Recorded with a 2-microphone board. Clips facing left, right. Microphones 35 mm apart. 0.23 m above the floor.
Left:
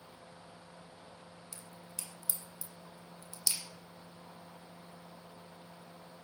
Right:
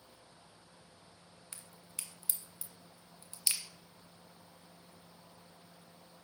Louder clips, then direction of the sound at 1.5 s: Right 1 dB; 40° right (ahead or behind).